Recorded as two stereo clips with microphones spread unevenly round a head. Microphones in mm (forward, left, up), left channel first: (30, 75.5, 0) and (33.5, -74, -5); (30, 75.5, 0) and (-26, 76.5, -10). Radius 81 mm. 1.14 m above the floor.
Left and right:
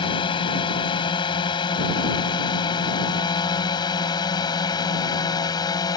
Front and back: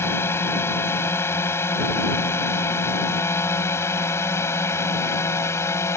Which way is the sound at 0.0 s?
35° left.